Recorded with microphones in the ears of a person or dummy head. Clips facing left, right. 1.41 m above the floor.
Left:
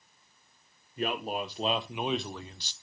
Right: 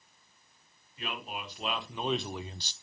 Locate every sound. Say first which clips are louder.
1.0 s a man speaking: left 8 dB; 40° left (ahead or behind), 2 m; by 2.7 s 40° right (ahead or behind), 0.9 m